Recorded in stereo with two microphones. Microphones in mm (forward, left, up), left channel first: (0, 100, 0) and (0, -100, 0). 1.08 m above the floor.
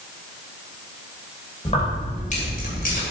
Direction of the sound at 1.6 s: 30° left (ahead or behind).